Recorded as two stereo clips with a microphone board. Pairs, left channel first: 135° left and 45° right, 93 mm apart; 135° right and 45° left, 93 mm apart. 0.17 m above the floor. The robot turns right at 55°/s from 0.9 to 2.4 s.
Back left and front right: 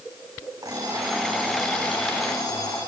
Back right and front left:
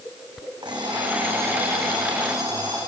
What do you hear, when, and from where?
0.6 s an alarm clock: 5° left, 6.5 m; by 2.8 s 90° left, 6.5 m